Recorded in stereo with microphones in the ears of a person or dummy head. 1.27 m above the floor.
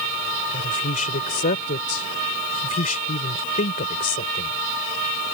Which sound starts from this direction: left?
A woman speaking, at 0.5 s.